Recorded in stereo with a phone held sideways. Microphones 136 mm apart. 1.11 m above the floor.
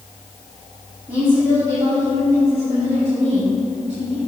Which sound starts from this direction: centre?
A woman speaking, at 1.1 s.